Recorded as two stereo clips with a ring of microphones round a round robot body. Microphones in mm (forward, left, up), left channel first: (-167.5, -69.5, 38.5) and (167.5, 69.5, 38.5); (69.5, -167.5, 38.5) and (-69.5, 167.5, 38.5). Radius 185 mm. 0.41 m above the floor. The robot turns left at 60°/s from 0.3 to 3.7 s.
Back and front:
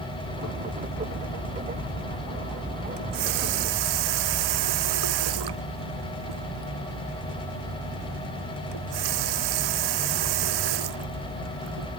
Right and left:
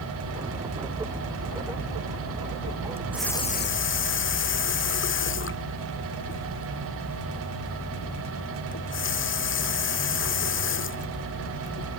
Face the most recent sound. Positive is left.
turn(degrees=-5)